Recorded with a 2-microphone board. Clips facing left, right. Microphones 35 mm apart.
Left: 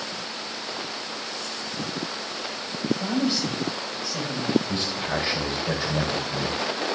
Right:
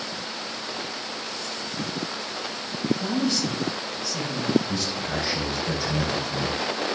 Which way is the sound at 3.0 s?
10° left (ahead or behind).